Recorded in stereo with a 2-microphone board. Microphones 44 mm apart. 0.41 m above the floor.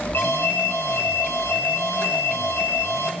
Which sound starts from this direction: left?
An alarm, at 0.1 s.